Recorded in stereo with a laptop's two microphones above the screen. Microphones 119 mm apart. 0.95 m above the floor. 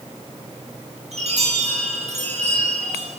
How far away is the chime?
About 8 m.